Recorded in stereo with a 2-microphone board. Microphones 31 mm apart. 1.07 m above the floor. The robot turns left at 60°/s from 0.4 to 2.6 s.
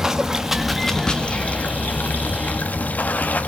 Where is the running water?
165° right, 1.5 m; by 3.5 s 65° left, 1.5 m.